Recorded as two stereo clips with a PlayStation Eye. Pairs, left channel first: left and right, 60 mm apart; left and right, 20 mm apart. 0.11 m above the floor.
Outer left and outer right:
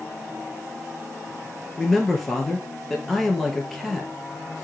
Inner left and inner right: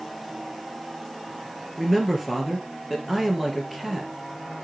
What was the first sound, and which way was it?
A man speaking, 5° left (ahead or behind).